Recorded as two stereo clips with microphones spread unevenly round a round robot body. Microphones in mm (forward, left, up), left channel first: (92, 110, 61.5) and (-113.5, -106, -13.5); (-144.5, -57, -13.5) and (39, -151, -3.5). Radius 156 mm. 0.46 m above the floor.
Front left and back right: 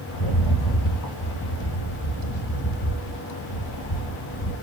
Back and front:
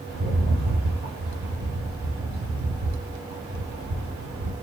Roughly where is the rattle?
Ahead.